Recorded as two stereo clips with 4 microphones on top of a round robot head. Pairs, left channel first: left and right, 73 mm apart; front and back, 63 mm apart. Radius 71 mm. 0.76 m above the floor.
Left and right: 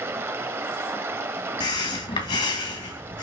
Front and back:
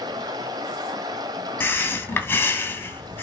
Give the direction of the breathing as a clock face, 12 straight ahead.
10 o'clock.